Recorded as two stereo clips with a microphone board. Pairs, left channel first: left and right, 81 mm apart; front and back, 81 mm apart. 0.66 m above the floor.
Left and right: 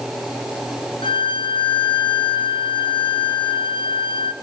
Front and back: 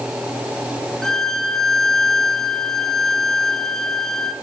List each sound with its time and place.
1.0 s a violin: 85° left, 0.5 m